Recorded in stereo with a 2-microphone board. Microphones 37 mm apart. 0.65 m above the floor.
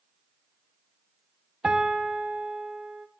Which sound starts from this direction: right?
A piano, at 1.6 s.